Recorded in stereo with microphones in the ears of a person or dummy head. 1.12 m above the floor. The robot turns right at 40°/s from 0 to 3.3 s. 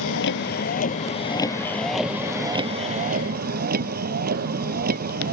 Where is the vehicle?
105° left; by 5.3 s 125° right.